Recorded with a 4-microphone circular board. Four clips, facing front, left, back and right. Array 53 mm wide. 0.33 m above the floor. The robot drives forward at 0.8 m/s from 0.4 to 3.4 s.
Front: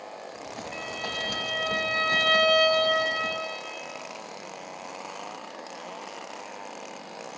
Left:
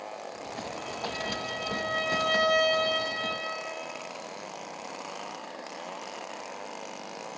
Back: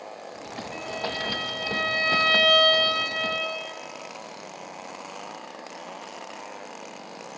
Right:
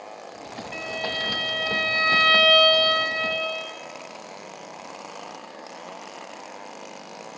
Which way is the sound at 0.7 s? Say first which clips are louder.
Right 8 dB, back 3 dB; 85° right.